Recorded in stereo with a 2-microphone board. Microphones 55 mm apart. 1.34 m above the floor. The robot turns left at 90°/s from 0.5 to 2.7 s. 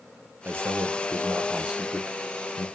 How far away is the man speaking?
About 0.5 m.